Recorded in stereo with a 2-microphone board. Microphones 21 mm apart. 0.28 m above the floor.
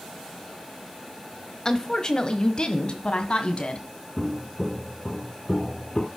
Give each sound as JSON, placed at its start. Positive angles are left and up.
{"t": 1.6, "sound": "a woman speaking", "side_deg": 25, "distance_m": 1.2}
{"t": 4.2, "sound": "footsteps", "side_deg": -15, "distance_m": 1.6}